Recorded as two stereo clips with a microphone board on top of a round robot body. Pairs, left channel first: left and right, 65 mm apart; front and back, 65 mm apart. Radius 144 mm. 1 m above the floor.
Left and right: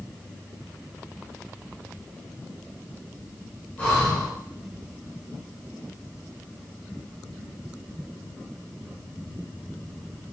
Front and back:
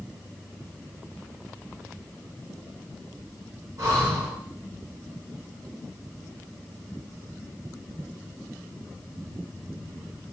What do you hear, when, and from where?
3.8 s breathing: 155° left, 2 m